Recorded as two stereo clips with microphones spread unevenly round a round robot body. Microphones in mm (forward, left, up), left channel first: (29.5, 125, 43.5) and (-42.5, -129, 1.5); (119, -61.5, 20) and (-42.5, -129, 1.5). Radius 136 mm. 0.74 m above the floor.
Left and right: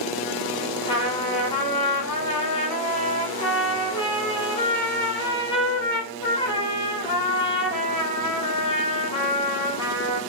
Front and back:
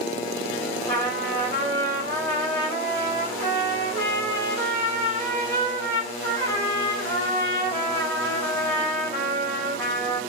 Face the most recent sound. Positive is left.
turn(degrees=145)